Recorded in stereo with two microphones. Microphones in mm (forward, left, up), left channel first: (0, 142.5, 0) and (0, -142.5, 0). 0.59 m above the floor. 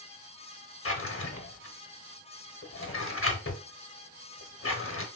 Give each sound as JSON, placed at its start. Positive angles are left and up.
{"t": 0.8, "sound": "a drawer", "side_deg": 50, "distance_m": 0.7}